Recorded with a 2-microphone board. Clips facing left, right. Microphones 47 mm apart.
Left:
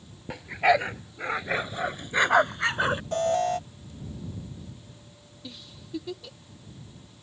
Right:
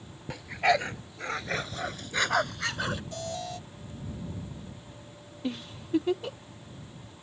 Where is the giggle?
40° right (ahead or behind).